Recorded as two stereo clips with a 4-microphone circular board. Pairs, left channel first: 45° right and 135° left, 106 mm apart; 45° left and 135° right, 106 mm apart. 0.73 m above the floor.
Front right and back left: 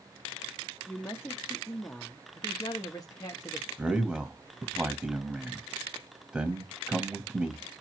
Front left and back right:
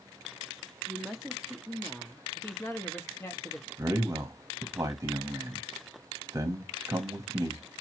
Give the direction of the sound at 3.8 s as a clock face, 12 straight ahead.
5 o'clock.